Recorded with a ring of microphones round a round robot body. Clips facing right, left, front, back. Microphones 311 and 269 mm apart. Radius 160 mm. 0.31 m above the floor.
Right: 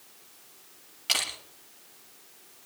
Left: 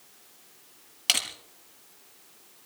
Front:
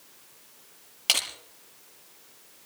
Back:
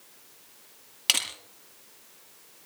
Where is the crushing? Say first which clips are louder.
Even, front 1 dB; 120° left, 6.5 m.